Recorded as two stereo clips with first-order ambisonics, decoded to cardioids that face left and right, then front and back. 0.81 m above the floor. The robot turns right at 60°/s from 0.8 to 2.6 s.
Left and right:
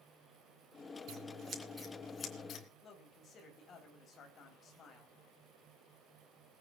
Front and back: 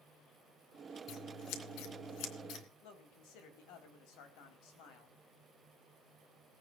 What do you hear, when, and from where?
1.1 s scissors: 50° right, 3 m; by 2.6 s 40° left, 3 m
2.8 s a man speaking: 30° left, 4.5 m